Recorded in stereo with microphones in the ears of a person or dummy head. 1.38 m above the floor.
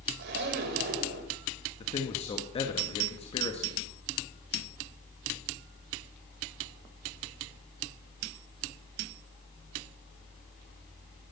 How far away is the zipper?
About 3 m.